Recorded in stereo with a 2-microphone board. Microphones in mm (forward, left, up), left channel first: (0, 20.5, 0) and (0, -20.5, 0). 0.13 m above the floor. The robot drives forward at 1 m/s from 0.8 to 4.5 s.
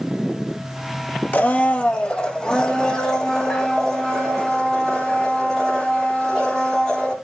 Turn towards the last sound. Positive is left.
turn(degrees=10)  # may be behind; listen again after turning